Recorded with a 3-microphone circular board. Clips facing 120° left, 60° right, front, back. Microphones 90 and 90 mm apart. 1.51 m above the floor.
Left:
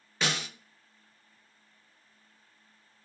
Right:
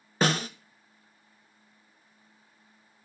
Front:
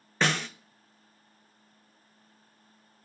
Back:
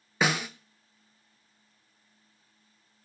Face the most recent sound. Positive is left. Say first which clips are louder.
# right 7 dB, back 1 dB
turn(degrees=-100)